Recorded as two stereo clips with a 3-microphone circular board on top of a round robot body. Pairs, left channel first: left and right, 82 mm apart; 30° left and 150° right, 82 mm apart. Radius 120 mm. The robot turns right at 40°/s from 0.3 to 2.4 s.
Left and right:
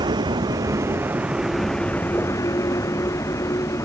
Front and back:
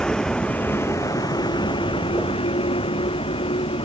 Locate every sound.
0.0 s a vehicle: 50° right; by 3.9 s 35° left